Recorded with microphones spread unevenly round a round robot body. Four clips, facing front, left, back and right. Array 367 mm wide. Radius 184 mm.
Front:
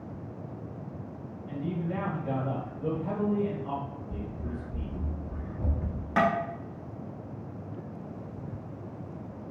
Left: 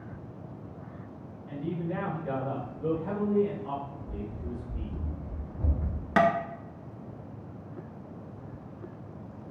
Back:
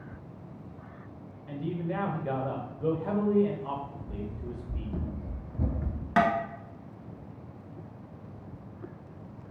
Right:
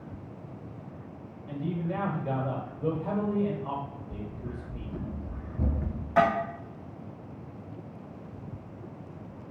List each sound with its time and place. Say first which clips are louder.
1.5 s a man speaking: right 1 dB, even; 135° right, 1.3 m
4.1 s running footsteps: left 1 dB, front 1 dB; 130° left, 0.9 m; by 6.1 s 115° right, 1.1 m
6.2 s tapping: even, back 1 dB; 110° left, 1.0 m